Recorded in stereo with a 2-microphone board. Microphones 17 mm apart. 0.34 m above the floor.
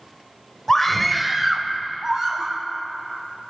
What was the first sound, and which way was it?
A scream, 25° left (ahead or behind).